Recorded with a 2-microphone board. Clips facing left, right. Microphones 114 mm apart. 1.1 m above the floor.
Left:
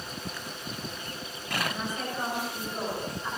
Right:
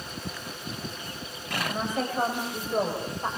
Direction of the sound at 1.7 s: 50° right (ahead or behind).